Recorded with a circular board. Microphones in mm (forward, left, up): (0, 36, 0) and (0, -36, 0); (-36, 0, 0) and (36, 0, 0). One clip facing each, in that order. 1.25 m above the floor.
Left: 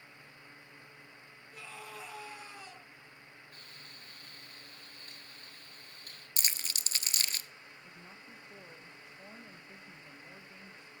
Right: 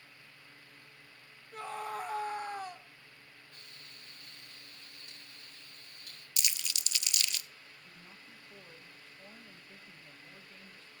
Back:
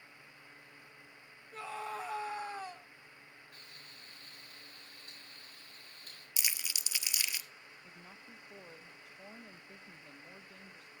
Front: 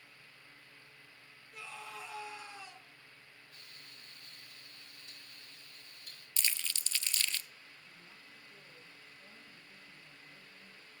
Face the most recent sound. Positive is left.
turn(degrees=165)